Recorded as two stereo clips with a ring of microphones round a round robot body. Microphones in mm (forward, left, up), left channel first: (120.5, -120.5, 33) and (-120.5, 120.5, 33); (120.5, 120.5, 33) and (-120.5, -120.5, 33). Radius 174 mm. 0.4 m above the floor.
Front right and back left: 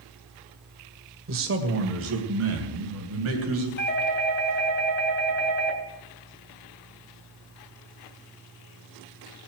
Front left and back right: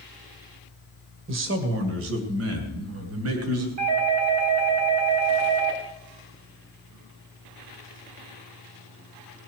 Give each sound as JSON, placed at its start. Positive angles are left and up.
{"t": 1.3, "sound": "a man speaking", "azimuth_deg": 180, "distance_m": 1.9}
{"t": 3.8, "sound": "a doorbell", "azimuth_deg": -105, "distance_m": 4.0}